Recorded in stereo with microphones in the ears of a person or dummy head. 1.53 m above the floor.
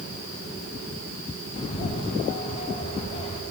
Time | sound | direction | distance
1.6 | a bird | 30° left (ahead or behind) | 1.2 m